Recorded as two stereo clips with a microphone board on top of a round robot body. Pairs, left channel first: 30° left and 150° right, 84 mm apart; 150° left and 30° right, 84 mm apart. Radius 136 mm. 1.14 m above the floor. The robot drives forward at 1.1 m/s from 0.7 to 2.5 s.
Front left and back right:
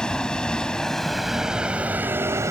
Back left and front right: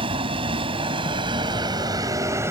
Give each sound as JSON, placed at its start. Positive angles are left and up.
{"t": 0.0, "sound": "a vehicle", "azimuth_deg": -50}